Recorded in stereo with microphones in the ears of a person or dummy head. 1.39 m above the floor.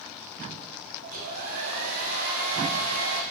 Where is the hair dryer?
45° right (ahead or behind), 0.6 m.